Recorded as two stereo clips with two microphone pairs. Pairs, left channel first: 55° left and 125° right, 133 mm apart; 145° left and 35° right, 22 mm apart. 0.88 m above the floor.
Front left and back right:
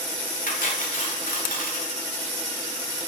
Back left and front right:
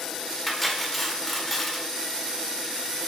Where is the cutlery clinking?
60° left, 1.7 m.